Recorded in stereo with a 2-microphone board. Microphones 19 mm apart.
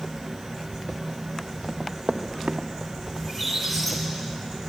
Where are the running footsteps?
35° right (ahead or behind), 2 m; by 2.9 s 50° right (ahead or behind), 2.5 m.